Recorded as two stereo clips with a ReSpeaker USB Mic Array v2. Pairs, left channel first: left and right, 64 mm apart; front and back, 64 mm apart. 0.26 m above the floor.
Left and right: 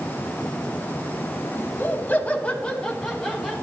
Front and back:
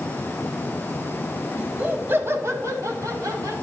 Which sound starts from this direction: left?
Laughter, at 1.6 s.